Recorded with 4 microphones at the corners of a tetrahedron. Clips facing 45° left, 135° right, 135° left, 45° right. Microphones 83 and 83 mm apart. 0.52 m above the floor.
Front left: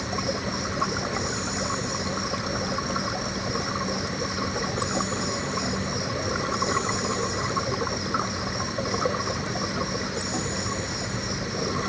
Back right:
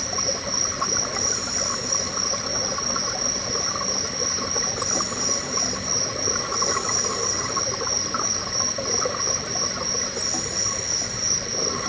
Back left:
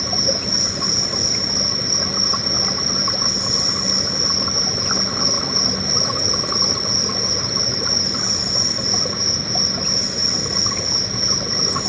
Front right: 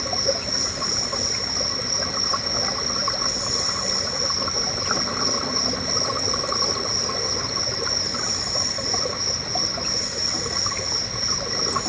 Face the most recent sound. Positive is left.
turn(degrees=110)